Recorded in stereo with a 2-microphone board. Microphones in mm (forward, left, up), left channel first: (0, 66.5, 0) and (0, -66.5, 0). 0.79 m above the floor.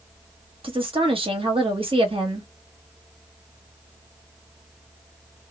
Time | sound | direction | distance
0.6 | a woman speaking | 40° right (ahead or behind) | 1.1 m